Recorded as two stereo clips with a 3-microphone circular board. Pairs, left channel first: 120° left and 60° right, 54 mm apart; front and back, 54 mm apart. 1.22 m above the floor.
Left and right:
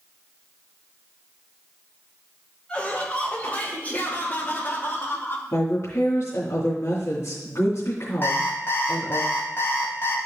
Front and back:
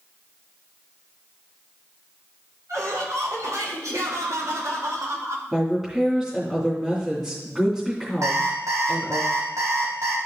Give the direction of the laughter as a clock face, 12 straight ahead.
6 o'clock.